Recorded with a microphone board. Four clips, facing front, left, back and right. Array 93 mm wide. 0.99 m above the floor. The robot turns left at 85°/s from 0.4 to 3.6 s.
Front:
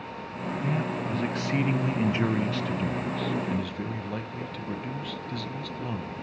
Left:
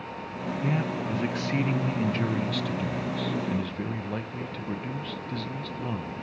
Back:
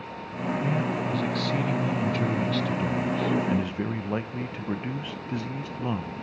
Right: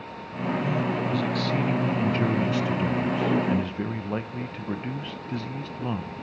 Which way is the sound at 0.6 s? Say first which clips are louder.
Even, back 1 dB; 110° left.